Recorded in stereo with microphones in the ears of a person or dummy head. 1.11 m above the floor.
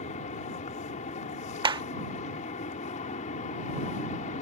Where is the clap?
25° right (ahead or behind).